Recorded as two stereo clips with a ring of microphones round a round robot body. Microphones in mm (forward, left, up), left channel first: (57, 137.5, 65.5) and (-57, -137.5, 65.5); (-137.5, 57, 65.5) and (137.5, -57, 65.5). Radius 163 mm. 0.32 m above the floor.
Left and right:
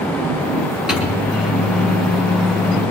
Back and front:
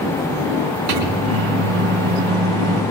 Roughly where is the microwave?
Ahead right.